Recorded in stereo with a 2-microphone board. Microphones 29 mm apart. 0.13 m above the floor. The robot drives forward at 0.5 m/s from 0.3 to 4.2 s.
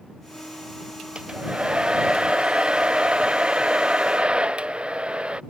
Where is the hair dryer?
35° right (ahead or behind).